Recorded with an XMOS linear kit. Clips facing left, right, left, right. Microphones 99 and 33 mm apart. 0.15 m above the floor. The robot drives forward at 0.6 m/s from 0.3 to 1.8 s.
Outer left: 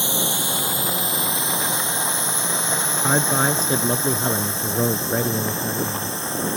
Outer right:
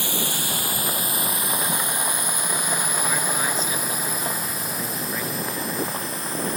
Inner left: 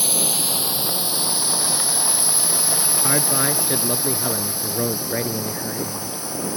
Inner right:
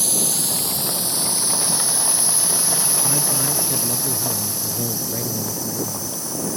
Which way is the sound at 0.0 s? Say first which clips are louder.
Outer left 3 dB, inner left 1 dB; 25° left (ahead or behind).